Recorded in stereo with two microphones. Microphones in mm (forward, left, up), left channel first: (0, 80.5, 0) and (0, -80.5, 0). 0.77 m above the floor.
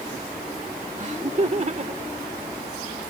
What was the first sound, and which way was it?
Laughter, 45° right (ahead or behind).